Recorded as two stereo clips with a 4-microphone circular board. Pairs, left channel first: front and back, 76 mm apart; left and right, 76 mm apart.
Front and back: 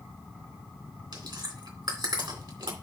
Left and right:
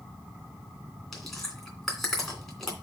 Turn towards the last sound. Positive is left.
turn(degrees=175)